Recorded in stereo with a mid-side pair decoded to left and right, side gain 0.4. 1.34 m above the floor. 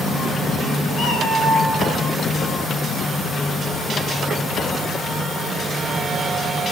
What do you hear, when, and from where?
0.9 s a cat meowing: 65° left, 7.5 m; by 2.0 s 55° left, 6.5 m